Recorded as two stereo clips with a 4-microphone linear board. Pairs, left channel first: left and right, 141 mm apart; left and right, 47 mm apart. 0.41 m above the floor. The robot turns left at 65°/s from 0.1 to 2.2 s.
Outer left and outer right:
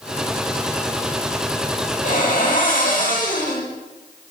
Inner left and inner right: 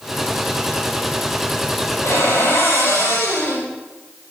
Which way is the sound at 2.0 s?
65° left (ahead or behind).